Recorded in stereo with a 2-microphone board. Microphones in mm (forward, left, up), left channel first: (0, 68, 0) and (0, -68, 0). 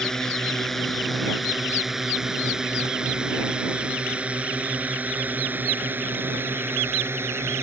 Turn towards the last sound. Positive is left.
turn(degrees=-20)  # may be behind; listen again after turning